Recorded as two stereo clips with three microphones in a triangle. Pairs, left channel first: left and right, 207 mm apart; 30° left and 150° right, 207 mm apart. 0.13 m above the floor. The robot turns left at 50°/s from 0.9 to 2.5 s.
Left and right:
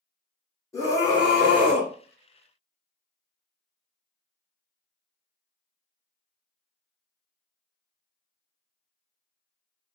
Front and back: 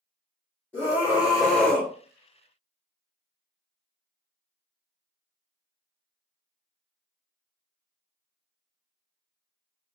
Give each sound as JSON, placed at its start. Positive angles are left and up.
{"t": 0.7, "sound": "a scream", "azimuth_deg": 145, "distance_m": 1.9}